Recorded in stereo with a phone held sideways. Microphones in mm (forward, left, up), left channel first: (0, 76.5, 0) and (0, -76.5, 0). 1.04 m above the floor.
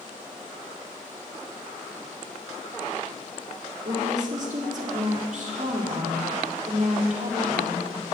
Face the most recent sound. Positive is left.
turn(degrees=-60)  # may be behind; listen again after turning